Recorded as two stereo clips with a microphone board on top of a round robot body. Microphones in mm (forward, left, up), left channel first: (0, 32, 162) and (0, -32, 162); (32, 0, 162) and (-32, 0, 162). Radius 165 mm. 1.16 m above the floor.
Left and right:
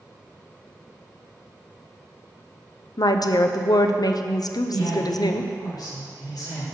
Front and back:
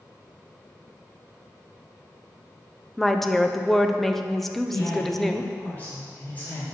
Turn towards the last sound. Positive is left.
turn(degrees=65)